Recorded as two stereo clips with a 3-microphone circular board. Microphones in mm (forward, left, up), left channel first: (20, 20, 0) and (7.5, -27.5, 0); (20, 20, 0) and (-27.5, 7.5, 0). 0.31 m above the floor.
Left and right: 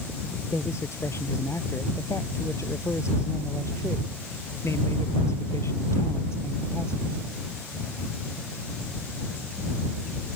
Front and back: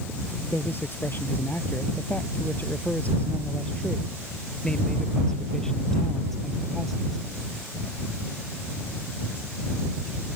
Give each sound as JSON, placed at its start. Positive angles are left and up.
{"t": 0.5, "sound": "a man speaking", "azimuth_deg": 55}